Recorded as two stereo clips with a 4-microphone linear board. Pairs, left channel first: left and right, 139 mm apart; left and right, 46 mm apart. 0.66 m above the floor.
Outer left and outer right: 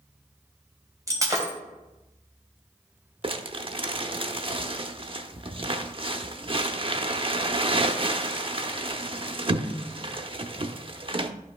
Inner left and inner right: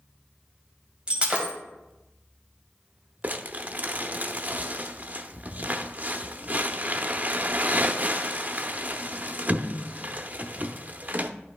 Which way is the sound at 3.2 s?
40° right (ahead or behind).